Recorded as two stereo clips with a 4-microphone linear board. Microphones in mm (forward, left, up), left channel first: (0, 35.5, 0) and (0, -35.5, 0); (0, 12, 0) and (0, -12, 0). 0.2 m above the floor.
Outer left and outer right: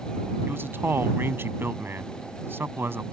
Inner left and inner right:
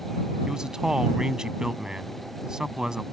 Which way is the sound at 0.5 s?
35° right (ahead or behind).